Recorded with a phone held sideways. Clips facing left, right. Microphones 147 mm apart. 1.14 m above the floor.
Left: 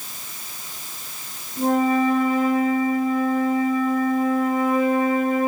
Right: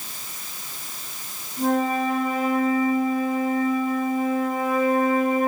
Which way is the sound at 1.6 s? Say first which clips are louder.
Left 3 dB; 35° left (ahead or behind).